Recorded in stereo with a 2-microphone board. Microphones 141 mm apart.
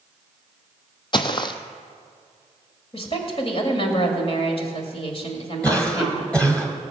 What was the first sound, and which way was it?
Footsteps, 35° left (ahead or behind).